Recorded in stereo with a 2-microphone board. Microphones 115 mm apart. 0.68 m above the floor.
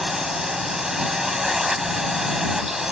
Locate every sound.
0.0 s a drone: 5° right (ahead or behind)